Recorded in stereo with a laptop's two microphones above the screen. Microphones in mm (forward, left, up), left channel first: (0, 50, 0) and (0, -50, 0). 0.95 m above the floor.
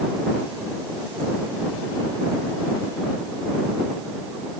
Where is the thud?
I don't hear a thud.